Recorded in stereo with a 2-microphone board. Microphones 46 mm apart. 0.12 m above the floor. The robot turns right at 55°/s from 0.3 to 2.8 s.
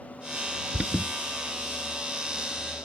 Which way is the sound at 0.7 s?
25° right (ahead or behind).